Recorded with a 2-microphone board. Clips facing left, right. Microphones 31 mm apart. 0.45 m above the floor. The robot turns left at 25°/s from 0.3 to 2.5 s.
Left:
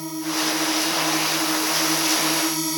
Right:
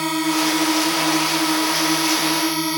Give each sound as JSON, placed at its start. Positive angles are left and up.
{"t": 0.0, "sound": "a drone", "azimuth_deg": -95}